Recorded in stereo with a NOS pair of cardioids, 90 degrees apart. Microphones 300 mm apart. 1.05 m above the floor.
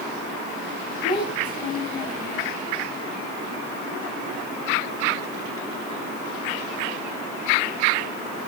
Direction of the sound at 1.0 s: 35° left.